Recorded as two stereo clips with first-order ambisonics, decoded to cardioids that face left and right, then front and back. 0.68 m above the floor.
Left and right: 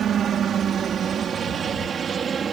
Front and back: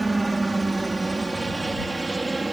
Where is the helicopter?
105° right; by 2.5 s 110° right.